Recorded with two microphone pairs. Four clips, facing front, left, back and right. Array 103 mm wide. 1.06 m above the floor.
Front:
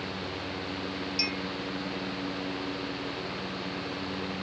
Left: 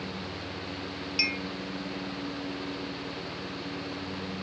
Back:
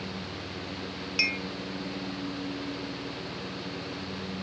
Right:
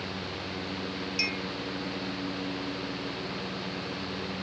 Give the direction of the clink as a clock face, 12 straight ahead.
6 o'clock.